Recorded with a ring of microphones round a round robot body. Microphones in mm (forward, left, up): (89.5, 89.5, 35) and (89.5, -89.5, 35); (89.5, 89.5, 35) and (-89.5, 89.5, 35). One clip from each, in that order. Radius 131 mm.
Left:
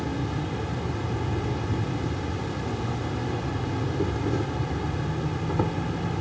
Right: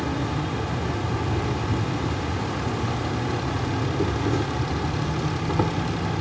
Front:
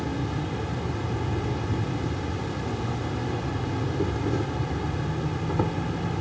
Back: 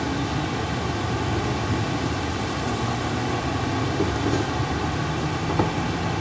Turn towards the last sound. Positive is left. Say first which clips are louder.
# right 4 dB, back 5 dB
turn(degrees=-170)